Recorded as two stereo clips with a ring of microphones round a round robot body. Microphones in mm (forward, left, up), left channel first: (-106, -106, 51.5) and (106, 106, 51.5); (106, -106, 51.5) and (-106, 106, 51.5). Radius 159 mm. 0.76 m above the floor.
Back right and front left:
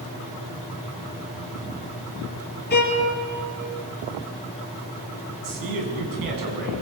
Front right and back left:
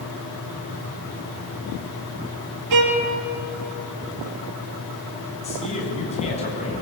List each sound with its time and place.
2.7 s a violin: 165° left, 4 m
5.4 s a man speaking: 25° left, 7 m